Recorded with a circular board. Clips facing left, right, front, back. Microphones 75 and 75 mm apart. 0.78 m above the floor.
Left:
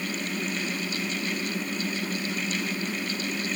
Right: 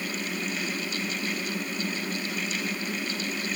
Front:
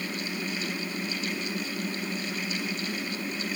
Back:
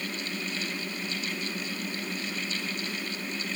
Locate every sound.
Only background noise.